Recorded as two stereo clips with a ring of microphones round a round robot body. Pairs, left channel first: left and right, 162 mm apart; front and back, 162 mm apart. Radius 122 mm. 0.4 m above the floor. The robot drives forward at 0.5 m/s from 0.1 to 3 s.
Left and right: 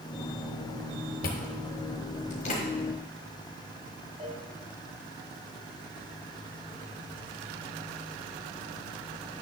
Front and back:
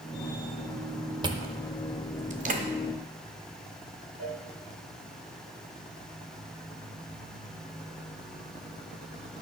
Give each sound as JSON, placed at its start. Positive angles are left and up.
{"t": 1.2, "sound": "chewing", "azimuth_deg": 120, "distance_m": 1.0}
{"t": 4.2, "sound": "a cowbell", "azimuth_deg": -150, "distance_m": 3.0}